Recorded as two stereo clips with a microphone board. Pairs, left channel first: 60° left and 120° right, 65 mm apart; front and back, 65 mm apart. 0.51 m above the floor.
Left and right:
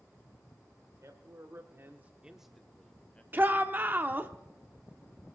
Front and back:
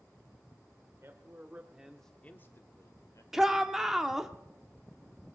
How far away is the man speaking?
About 1.4 m.